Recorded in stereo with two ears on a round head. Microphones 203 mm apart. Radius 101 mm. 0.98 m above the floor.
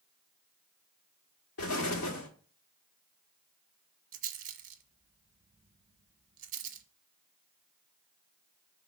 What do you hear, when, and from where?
1.6 s an explosion: 70° left (ahead or behind), 1.5 m
4.1 s a rattle: 35° right (ahead or behind), 0.9 m